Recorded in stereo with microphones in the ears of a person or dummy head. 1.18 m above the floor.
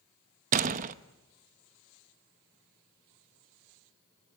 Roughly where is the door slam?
Right.